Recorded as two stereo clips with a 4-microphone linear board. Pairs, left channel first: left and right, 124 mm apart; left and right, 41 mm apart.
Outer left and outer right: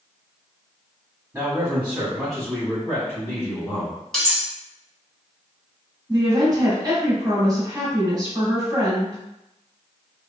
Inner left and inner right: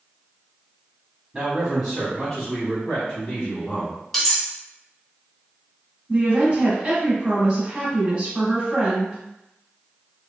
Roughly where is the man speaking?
Right.